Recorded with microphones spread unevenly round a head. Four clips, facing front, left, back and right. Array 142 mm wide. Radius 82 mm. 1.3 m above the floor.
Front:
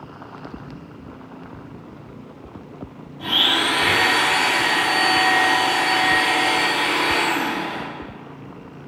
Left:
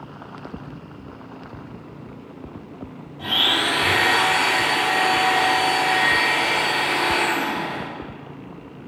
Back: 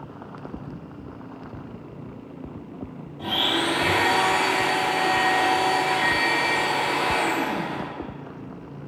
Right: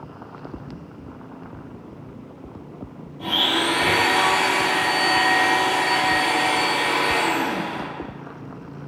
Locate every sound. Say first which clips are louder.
3.2 s a blender: right 1 dB, front 2 dB; 135° left, 1.6 m